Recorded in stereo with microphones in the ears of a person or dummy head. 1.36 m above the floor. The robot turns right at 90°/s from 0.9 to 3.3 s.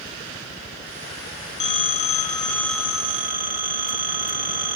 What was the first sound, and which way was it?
A phone ringing, 80° left.